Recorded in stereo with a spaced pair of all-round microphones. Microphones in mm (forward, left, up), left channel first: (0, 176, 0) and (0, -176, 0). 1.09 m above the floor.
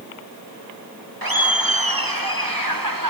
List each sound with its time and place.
1.2 s laughter: 75° right (ahead or behind), 2 m; by 3.1 s 65° right (ahead or behind), 3 m